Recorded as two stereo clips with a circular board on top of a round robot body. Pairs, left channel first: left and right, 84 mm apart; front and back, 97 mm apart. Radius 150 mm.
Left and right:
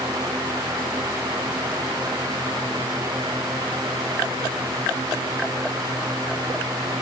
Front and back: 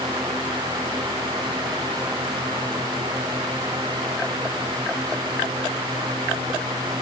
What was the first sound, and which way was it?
Only background noise.